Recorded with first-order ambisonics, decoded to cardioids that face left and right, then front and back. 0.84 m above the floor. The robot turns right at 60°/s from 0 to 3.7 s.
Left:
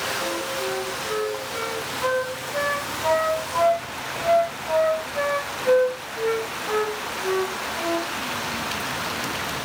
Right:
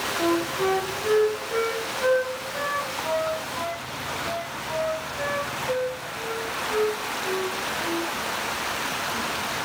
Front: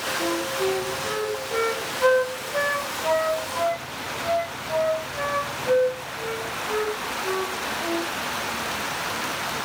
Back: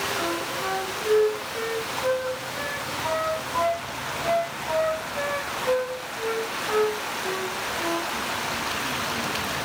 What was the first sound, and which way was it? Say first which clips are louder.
A flute: right 3 dB, front 2 dB; 120° right.